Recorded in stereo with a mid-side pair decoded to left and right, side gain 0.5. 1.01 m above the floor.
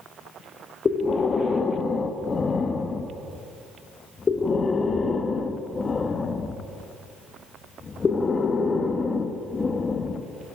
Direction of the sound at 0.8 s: 35° left.